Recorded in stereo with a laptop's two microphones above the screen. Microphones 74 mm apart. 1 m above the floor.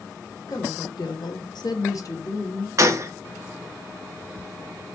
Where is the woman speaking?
60° left (ahead or behind), 1.0 m; by 2.7 s 30° left (ahead or behind), 1.1 m.